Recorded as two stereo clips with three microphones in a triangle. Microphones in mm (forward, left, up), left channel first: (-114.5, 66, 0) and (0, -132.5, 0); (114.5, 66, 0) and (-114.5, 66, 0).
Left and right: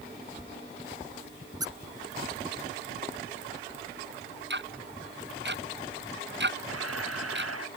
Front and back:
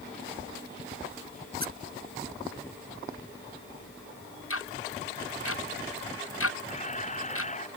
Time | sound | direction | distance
1.6 | a squeak | 135° right | ?
4.5 | ticking | 20° right | ?
6.7 | a camera shutter | 60° right | ?